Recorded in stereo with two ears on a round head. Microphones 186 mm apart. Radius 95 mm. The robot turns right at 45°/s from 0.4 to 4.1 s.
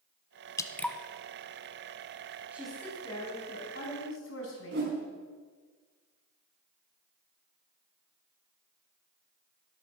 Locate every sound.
0.6 s dripping: 15° left (ahead or behind), 0.9 m; by 1.0 s centre (ahead or behind), 0.9 m
2.5 s a woman speaking: 10° right, 4.5 m; by 4.9 s 65° left, 4.5 m
4.7 s a whoosh: 50° right (ahead or behind), 3.5 m